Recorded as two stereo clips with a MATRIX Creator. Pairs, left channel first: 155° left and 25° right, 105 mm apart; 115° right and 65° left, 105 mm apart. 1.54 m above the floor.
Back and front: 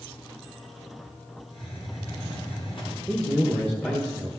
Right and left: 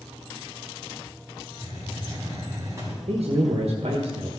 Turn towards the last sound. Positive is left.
turn(degrees=80)